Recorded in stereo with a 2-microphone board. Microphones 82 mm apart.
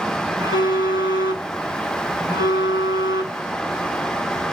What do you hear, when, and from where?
0.4 s a phone buzzing: 60° right (ahead or behind), 3 m